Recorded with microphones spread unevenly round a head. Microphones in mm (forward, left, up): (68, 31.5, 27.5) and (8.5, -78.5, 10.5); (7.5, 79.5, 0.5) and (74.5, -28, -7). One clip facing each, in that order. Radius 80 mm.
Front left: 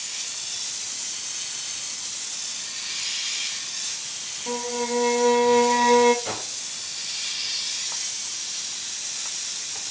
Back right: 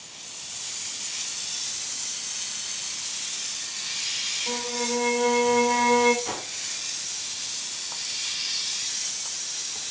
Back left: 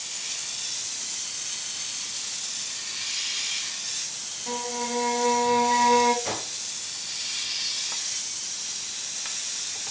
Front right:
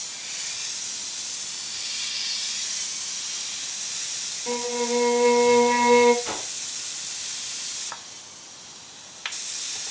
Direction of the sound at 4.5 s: 10° left.